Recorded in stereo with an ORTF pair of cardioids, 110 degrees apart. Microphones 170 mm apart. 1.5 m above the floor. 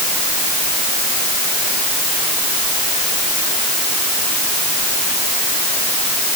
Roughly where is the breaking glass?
No breaking glass in this recording.